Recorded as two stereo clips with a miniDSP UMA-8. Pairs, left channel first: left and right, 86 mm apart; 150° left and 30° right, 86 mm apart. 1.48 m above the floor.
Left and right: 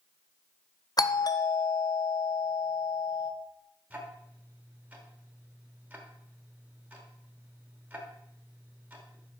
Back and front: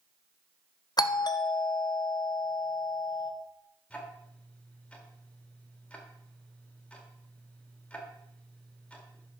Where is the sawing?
I don't hear sawing.